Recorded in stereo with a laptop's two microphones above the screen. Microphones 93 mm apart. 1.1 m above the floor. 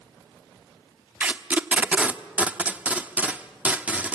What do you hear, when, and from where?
1.2 s tape being pulled: 15° right (ahead or behind), 0.9 m